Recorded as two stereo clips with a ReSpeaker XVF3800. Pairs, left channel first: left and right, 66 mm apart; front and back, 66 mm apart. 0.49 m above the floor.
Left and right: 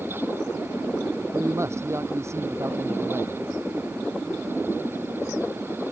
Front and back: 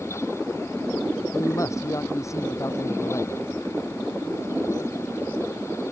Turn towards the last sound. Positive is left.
turn(degrees=-45)